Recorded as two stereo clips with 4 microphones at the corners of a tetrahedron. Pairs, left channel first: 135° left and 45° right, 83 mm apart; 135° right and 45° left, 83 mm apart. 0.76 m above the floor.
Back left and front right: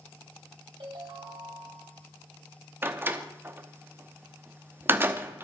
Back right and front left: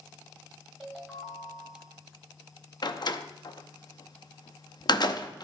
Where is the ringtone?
45° right, 2.5 m.